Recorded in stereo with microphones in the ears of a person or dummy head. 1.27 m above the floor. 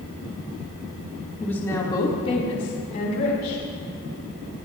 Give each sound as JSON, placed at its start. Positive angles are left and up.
{"t": 1.4, "sound": "a woman speaking", "side_deg": 5, "distance_m": 3.0}